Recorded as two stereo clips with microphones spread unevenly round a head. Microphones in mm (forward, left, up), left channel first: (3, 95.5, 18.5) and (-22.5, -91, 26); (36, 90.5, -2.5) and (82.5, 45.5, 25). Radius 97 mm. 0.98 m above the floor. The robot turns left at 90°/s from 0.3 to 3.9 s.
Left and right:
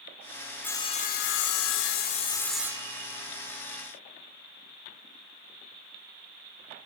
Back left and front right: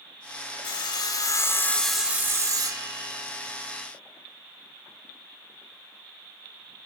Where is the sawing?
165° left, 2.5 m; by 3.2 s 70° right, 2.5 m.